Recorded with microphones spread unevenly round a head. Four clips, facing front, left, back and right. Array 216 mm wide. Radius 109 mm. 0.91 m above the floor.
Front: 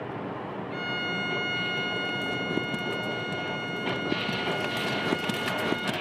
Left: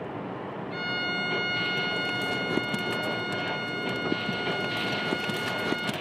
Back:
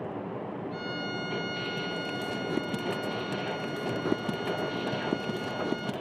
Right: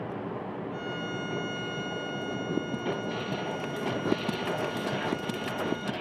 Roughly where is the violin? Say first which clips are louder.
Left 3 dB, front 2 dB; ahead left.